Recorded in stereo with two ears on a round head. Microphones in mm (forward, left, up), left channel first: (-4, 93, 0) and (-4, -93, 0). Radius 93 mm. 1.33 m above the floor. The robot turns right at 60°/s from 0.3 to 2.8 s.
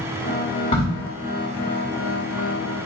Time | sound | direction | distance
0.7 | a crack | 30° left (ahead or behind) | 1.2 m